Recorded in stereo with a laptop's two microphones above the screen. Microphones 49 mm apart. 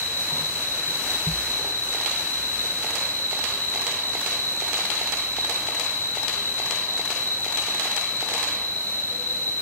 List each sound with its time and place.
0.0 s an insect: 55° left (ahead or behind), 1.8 m